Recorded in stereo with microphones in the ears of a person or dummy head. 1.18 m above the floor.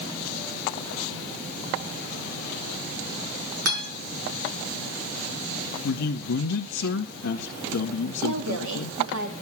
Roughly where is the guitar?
Right.